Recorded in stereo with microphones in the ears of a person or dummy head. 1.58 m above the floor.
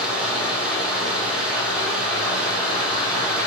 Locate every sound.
0.0 s running water: 5° right (ahead or behind), 1.3 m